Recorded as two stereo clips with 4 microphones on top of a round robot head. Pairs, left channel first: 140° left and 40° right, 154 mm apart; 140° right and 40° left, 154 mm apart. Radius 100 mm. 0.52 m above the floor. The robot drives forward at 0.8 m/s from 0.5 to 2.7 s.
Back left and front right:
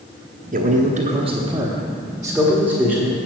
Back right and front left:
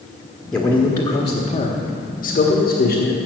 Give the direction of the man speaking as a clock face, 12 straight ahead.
2 o'clock.